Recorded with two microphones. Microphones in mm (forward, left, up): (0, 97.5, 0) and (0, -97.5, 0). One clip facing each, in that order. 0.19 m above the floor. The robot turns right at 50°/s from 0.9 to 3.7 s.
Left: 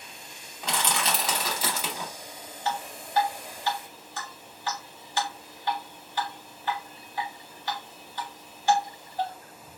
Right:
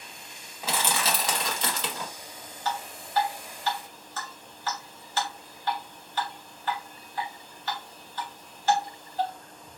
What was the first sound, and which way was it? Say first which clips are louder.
Crushing: even; 5° right (ahead or behind).